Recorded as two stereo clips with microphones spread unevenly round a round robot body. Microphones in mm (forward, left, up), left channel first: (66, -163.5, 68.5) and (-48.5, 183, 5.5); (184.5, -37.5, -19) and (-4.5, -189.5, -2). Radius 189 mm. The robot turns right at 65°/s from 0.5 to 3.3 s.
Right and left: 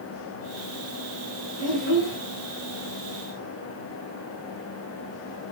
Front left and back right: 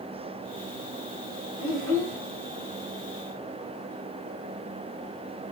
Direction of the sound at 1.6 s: 150° right.